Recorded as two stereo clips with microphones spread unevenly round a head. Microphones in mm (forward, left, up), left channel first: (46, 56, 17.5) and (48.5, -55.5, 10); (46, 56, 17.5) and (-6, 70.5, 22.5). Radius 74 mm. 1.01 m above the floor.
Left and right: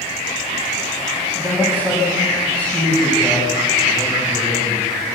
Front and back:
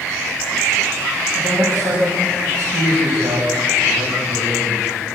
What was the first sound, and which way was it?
A man speaking, 175° right.